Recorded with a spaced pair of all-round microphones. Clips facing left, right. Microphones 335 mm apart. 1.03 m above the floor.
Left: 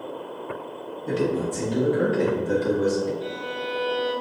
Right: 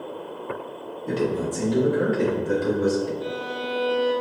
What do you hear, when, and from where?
1.1 s a man speaking: 25° left (ahead or behind), 1.6 m; by 3.1 s 65° left (ahead or behind), 3.5 m
3.2 s a violin: 50° left (ahead or behind), 1.4 m